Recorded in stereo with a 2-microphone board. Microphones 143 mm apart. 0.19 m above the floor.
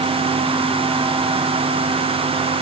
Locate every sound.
Only background noise.